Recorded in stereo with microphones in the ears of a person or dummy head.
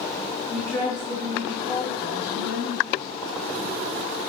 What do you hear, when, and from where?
0.5 s a woman speaking: centre (ahead or behind), 3 m; by 3.1 s 55° left (ahead or behind), 4 m